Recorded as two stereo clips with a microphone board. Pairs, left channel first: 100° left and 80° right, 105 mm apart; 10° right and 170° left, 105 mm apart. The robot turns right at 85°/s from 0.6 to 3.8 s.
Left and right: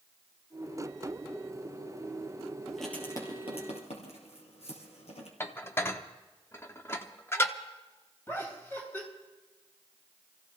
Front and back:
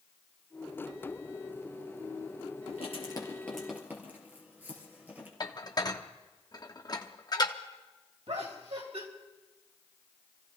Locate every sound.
2.7 s writing: straight ahead, 3.5 m; by 5.3 s 95° left, 3.5 m
5.4 s dishes clattering: 35° left, 0.9 m
8.3 s laughter: 170° left, 4 m